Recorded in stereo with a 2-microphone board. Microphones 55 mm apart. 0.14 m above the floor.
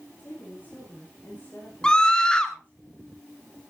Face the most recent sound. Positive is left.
turn(degrees=15)  # may be behind; listen again after turning